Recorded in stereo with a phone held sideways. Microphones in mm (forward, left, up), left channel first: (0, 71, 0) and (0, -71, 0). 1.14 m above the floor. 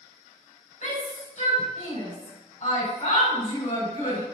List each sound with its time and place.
0.8 s a shout: 60° left (ahead or behind), 4.5 m